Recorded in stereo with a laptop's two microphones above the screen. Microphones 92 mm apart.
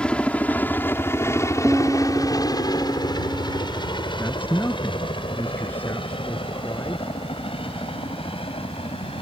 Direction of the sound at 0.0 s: 10° left (ahead or behind).